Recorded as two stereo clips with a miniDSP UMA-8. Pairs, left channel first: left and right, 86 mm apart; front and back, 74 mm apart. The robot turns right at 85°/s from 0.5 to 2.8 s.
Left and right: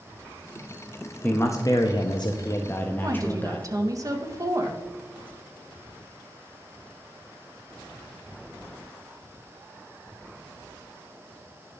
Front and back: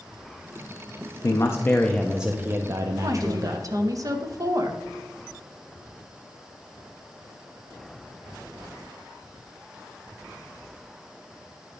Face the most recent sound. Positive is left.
turn(degrees=-140)